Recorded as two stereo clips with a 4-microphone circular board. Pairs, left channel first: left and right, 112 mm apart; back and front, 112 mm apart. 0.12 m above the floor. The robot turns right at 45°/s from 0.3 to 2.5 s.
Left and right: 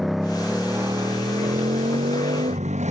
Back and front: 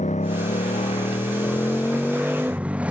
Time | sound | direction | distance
0.0 | a motorcycle | straight behind | ?